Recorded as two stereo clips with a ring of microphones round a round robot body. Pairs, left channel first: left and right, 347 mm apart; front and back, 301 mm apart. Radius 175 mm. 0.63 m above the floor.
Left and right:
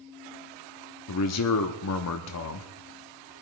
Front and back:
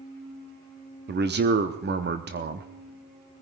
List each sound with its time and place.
1.1 s a man speaking: 130° left, 1.0 m